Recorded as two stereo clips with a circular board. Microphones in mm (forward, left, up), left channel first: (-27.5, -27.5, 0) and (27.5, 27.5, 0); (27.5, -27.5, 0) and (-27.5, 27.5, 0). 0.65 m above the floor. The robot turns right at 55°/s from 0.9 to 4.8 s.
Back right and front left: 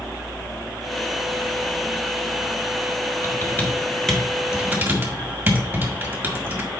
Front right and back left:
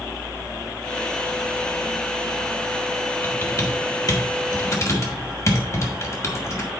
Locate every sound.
3.2 s typing on a keyboard: 100° right, 1.7 m; by 6.7 s 15° right, 1.7 m